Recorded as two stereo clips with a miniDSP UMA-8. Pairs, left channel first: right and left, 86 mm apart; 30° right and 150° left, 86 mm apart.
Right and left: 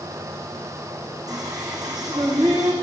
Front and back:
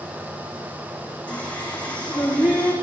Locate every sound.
1.3 s singing: 45° left, 5.5 m